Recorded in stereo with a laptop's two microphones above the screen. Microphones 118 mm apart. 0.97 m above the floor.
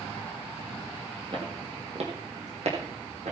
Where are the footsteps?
45° right (ahead or behind), 1.9 m; by 3.3 s 70° right (ahead or behind), 3.5 m.